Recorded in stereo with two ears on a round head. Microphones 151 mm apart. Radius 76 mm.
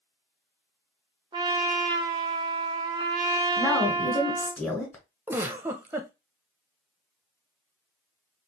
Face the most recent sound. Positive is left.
turn(degrees=-15)  # may be behind; listen again after turning